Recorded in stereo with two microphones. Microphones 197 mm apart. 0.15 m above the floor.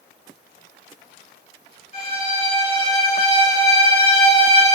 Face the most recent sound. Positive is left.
turn(degrees=30)  # may be behind; listen again after turning